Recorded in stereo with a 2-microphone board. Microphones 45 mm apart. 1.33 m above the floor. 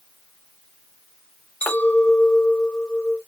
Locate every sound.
1.6 s a clink: 40° left (ahead or behind), 2 m